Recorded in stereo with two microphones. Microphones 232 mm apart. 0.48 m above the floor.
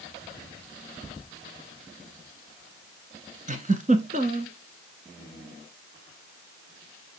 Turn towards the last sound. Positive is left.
turn(degrees=-35)  # may be behind; listen again after turning